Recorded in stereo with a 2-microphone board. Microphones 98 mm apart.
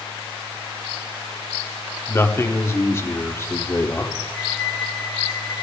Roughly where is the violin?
Centre.